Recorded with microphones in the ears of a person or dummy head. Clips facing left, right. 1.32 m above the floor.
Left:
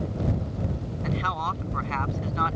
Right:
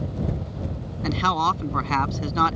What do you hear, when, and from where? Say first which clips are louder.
1.0 s a man speaking: right 7 dB; 60° right (ahead or behind)